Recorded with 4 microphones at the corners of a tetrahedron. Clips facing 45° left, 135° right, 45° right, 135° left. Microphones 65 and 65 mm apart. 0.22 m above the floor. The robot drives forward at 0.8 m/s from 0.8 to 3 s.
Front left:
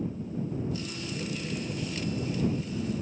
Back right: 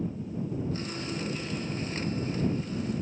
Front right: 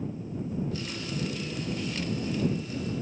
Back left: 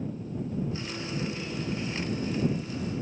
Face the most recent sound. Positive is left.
turn(degrees=175)